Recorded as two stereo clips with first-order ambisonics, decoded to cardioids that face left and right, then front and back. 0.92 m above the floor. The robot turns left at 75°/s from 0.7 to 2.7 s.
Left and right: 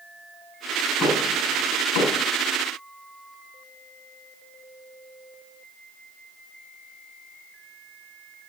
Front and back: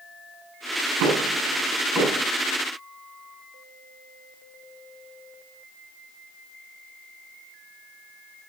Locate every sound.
1.0 s knocking: 175° left, 8.5 m; by 2.2 s 80° left, 8.5 m